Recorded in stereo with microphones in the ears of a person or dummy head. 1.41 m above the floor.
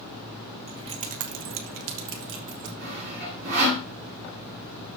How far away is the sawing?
About 4 m.